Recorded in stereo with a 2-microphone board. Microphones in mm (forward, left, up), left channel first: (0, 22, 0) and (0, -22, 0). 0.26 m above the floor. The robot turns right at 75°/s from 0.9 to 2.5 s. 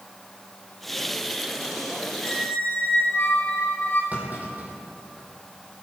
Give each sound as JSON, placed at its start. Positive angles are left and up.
{"t": 2.2, "sound": "a squeak", "side_deg": 25, "distance_m": 4.5}
{"t": 4.1, "sound": "a clunk", "side_deg": -40, "distance_m": 4.5}